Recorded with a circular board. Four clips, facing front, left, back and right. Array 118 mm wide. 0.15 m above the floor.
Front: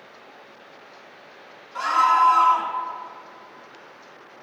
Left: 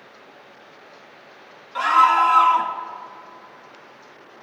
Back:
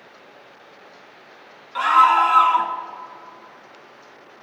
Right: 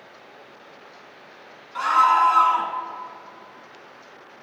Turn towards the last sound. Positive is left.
turn(degrees=165)